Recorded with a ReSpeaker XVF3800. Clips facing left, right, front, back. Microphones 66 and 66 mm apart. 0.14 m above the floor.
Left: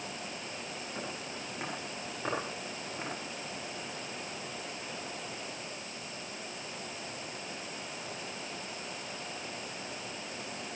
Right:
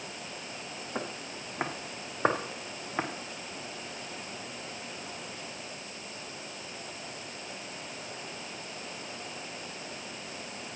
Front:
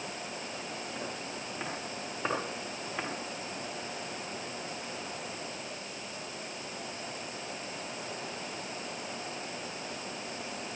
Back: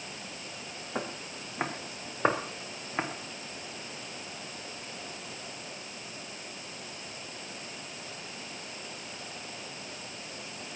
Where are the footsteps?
135° right, 4 m; by 3.1 s 115° right, 3 m.